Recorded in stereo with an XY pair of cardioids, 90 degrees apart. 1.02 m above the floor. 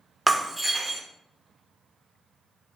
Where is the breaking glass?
10° right, 0.6 m.